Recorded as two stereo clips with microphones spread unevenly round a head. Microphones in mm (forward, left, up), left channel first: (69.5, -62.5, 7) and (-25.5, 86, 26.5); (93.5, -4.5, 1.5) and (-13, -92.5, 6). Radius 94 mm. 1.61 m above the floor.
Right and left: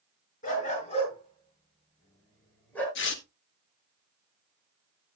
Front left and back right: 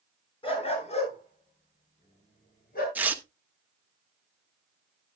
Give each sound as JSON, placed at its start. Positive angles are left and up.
{"t": 0.4, "sound": "a dog barking", "azimuth_deg": -10, "distance_m": 5.5}
{"t": 3.0, "sound": "tearing paper", "azimuth_deg": -65, "distance_m": 1.2}